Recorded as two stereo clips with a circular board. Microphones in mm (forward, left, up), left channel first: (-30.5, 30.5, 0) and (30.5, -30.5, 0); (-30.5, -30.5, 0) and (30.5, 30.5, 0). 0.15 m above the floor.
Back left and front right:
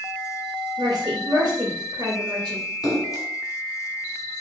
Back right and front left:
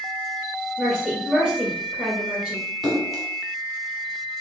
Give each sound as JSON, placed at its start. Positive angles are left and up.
{"t": 0.8, "sound": "a woman speaking", "azimuth_deg": -45, "distance_m": 1.9}
{"t": 2.8, "sound": "a splash", "azimuth_deg": 130, "distance_m": 1.3}